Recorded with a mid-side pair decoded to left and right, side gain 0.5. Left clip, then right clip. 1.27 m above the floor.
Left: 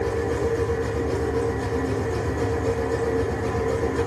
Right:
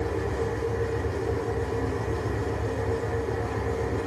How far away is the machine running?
About 1.8 m.